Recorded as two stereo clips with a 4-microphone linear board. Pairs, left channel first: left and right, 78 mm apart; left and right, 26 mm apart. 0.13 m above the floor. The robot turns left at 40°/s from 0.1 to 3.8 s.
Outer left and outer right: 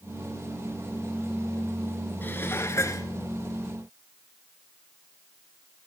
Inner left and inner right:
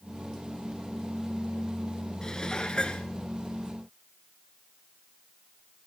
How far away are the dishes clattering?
About 1.0 m.